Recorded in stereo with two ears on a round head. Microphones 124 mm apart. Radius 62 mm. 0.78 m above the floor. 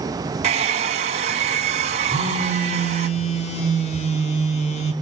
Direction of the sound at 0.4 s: 50° right (ahead or behind).